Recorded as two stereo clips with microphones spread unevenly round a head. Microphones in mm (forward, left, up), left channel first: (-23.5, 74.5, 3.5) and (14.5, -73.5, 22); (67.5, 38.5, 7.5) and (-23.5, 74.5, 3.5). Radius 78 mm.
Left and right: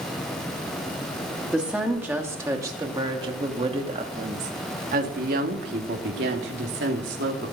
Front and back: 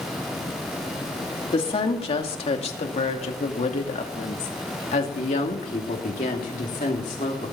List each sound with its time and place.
1.5 s a woman speaking: 10° left, 2.5 m; by 7.5 s 60° right, 3 m